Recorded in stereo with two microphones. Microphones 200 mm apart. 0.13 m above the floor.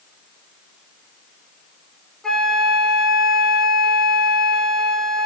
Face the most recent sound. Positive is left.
turn(degrees=0)  # may be behind; listen again after turning